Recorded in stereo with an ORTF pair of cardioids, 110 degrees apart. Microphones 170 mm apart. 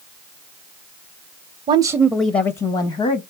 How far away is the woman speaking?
About 0.6 m.